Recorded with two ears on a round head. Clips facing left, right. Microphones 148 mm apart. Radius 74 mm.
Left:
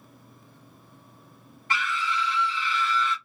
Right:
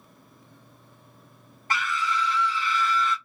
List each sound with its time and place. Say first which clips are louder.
1.7 s a scream: right 1 dB; 35° right (ahead or behind), 1.1 m